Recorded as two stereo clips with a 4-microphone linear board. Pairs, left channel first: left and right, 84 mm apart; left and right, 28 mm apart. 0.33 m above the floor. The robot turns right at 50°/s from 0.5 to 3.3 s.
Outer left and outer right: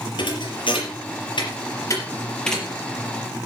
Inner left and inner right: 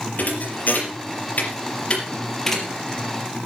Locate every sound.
0.2 s a thud: 70° left (ahead or behind), 4 m; by 2.7 s 5° right (ahead or behind), 4 m